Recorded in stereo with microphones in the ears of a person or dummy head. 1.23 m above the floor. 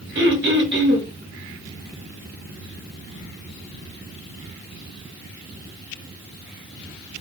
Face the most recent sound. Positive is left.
turn(degrees=-55)  # may be behind; listen again after turning